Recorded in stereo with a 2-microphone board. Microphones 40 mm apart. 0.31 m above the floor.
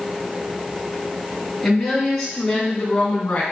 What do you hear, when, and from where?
1.6 s a woman speaking: centre (ahead or behind), 3.5 m; by 3.4 s 30° left (ahead or behind), 3 m